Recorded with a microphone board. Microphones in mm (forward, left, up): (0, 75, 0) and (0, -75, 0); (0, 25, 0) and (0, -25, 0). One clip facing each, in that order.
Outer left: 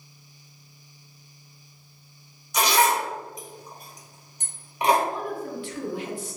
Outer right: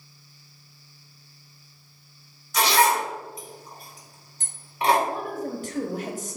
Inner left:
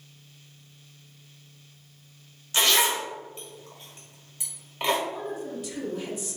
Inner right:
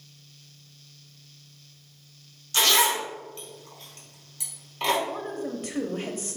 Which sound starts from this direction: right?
A woman speaking, at 5.1 s.